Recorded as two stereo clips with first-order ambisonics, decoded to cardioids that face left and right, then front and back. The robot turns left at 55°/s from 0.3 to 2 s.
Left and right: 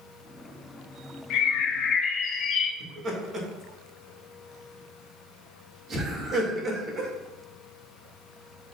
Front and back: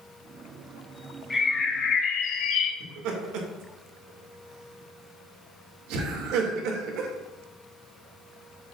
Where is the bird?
75° left, 0.8 m; by 2.7 s 40° left, 0.8 m.